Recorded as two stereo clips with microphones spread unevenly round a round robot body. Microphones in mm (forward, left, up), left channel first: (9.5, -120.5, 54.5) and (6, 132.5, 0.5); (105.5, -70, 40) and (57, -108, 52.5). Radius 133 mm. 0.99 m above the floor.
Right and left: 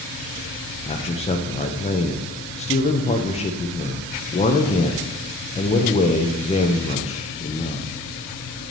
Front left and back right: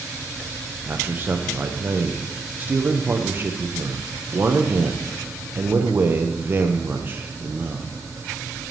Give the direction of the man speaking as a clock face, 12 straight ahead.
5 o'clock.